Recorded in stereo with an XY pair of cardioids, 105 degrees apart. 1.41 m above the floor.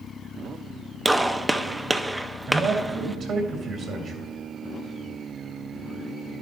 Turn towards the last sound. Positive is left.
turn(degrees=-60)